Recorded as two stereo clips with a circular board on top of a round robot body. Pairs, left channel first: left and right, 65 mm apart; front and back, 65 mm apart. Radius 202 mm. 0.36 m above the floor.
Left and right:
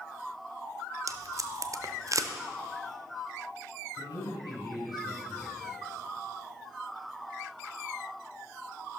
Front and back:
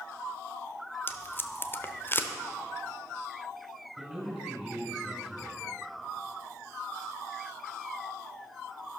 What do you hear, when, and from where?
1.1 s tape being pulled: 55° right, 0.9 m
4.0 s a man speaking: 95° left, 5 m